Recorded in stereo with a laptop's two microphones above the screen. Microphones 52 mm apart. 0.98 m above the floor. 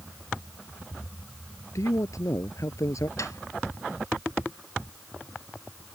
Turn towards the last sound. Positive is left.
turn(degrees=75)  # may be behind; listen again after turning